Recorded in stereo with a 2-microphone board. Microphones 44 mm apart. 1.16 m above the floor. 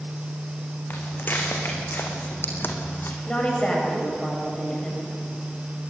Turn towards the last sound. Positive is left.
turn(degrees=25)  # may be behind; listen again after turning